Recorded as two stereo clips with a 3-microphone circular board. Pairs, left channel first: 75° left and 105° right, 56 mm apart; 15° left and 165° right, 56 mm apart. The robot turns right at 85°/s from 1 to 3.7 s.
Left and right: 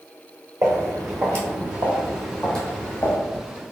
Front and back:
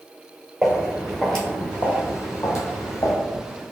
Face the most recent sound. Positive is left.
turn(degrees=80)